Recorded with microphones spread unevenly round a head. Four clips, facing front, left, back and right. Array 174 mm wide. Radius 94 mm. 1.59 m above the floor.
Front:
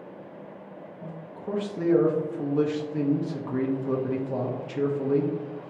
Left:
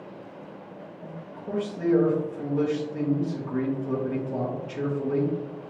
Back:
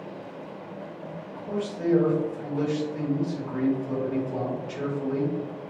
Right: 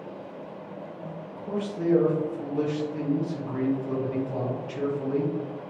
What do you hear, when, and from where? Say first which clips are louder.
1.0 s a man speaking: right 1 dB, even; 5° left, 1.2 m